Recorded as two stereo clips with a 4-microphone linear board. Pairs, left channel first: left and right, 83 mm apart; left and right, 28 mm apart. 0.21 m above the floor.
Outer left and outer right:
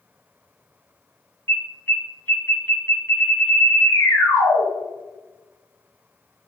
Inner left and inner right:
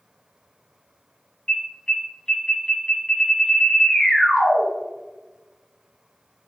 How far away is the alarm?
About 1.8 m.